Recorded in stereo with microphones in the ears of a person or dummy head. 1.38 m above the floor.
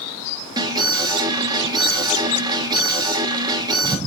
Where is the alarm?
15° right (ahead or behind), 2.5 m.